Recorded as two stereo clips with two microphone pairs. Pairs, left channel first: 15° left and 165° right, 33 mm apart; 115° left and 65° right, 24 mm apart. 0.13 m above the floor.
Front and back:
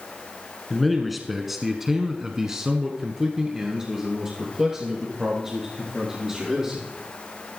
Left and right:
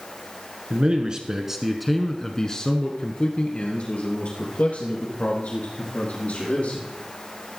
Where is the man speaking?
75° right, 1.5 m; by 6.8 s 120° left, 4.5 m.